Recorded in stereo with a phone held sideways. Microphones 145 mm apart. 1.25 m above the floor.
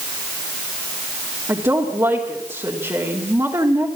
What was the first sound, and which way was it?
A woman speaking, 25° right (ahead or behind).